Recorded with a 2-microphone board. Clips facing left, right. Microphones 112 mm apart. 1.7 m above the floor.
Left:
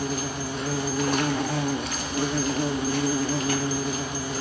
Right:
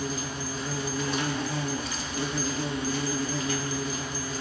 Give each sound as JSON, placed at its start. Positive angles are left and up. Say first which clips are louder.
{"t": 0.0, "sound": "an insect", "louder": "left 4 dB", "side_deg": 60, "distance_m": 0.9}